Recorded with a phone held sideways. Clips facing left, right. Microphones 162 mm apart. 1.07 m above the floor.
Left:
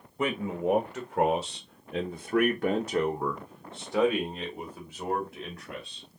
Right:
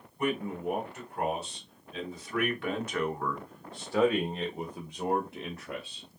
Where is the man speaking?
80° left, 1.5 m; by 6.1 s 30° right (ahead or behind), 1.9 m.